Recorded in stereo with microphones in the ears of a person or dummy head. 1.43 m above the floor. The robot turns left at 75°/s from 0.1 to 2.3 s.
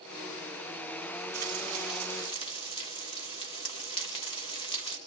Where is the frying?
130° right, 1.3 m; by 5.0 s 155° left, 1.3 m.